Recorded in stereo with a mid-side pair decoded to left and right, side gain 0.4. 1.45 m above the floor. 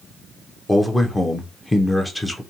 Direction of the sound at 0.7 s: 15° left.